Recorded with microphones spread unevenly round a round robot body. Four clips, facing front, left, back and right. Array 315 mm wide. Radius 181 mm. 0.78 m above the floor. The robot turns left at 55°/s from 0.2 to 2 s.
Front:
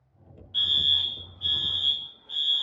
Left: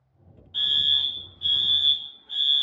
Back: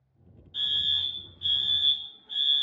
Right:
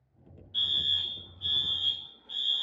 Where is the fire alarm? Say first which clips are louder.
Left 6 dB, front 4 dB; 45° left, 2.5 m; by 2.6 s 35° right, 2.5 m.